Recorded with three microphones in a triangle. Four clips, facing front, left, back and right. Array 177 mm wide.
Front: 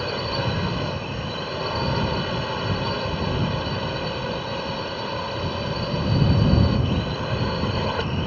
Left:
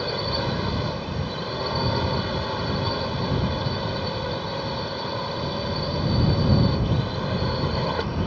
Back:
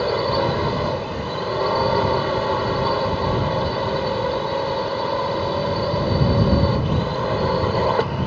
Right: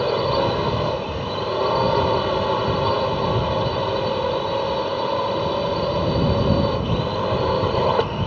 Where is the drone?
125° right.